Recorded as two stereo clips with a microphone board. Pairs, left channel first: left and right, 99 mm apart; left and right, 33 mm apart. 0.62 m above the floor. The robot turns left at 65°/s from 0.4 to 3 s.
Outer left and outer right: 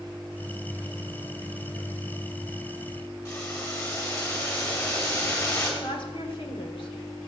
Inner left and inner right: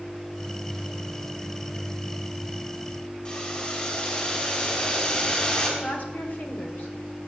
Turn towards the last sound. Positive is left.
turn(degrees=60)  # may be behind; listen again after turning